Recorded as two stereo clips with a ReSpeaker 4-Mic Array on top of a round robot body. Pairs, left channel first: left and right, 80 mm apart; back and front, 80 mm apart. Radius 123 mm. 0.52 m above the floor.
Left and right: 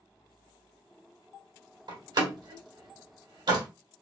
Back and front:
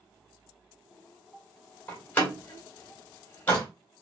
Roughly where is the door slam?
Right.